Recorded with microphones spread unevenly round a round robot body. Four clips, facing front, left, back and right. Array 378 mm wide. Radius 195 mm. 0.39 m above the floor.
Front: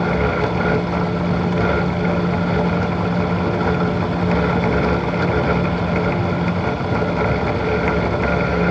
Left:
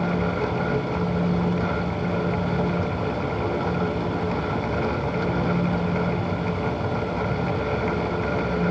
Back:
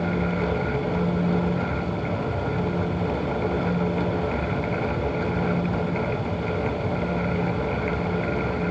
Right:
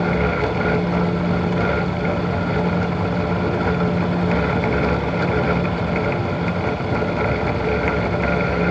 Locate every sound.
Only background noise.